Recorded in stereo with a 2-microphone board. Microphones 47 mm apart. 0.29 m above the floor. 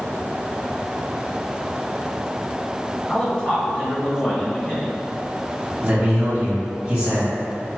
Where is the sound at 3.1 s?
25° left (ahead or behind), 1.2 m.